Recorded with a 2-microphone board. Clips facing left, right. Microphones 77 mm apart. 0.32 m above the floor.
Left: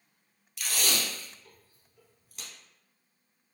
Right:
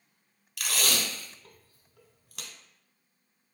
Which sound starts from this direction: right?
Tape being pulled, at 0.6 s.